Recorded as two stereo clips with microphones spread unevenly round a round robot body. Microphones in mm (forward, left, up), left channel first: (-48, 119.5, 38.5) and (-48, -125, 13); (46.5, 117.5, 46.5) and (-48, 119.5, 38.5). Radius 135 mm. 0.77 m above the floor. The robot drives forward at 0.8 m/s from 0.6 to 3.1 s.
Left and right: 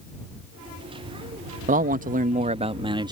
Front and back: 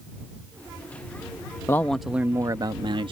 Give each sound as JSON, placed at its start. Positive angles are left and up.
{"t": 1.7, "sound": "a man speaking", "azimuth_deg": -60}